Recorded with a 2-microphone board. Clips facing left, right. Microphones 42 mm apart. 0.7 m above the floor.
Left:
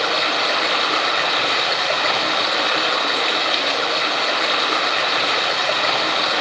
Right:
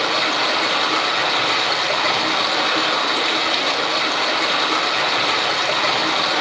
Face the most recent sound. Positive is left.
turn(degrees=15)  # may be behind; listen again after turning